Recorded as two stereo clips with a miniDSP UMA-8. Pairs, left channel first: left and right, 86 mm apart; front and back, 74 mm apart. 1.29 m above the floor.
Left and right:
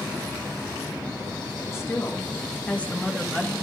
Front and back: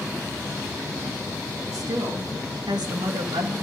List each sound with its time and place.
1.7 s a woman speaking: 145° left, 2 m; by 3.5 s 175° left, 1.9 m